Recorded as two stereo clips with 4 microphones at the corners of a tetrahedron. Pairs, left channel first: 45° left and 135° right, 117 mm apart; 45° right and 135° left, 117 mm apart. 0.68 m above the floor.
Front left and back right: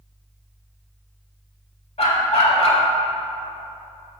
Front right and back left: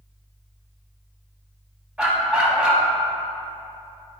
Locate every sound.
2.0 s a dog barking: 55° left, 0.9 m